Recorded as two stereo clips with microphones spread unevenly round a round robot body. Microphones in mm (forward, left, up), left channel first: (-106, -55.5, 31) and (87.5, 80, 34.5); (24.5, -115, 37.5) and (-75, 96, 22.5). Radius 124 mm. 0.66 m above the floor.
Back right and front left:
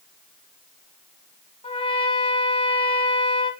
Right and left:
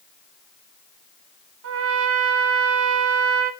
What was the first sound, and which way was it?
A trumpet, 145° left.